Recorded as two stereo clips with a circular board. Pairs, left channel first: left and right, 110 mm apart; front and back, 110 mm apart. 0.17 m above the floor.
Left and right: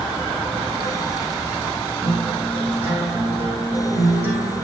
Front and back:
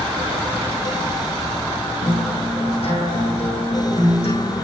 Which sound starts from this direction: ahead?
A guitar, at 2.0 s.